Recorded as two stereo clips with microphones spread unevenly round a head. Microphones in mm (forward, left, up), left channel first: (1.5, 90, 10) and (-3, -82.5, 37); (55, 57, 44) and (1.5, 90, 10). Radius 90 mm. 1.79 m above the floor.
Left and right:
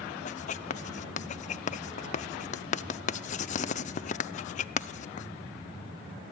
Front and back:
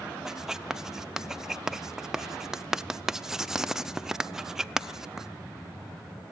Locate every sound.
0.2 s writing: 40° left, 0.6 m